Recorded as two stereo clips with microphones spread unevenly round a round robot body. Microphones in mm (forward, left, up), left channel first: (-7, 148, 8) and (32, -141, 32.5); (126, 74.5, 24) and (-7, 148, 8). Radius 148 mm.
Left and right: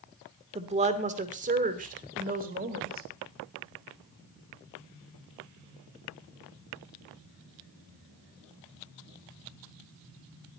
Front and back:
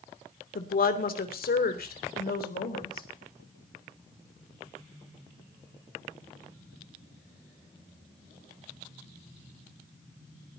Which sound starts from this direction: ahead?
A woman speaking, at 0.6 s.